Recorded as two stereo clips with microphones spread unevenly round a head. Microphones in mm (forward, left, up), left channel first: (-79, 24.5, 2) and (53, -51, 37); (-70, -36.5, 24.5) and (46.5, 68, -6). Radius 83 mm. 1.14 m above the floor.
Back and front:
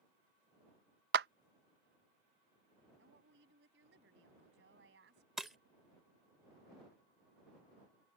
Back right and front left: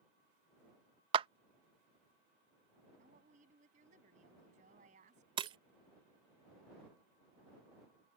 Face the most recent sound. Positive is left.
turn(degrees=10)